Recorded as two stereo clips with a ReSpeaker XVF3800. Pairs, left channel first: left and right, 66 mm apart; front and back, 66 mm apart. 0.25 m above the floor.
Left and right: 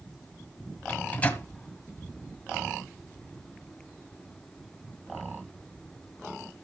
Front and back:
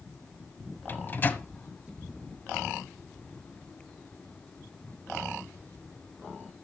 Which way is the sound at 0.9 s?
40° left.